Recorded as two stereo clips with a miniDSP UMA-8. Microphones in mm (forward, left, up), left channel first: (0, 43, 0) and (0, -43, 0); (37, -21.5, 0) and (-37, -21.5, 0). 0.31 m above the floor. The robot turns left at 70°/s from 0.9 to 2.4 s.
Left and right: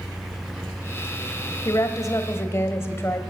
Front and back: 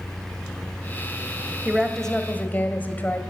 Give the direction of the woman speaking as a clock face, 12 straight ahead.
9 o'clock.